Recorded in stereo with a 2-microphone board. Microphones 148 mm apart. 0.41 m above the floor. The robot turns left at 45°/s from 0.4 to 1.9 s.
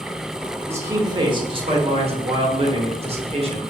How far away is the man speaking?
About 1.0 m.